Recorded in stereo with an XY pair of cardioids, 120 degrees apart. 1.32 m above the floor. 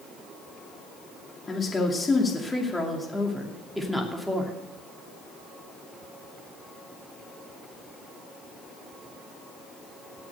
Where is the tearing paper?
No tearing paper in this recording.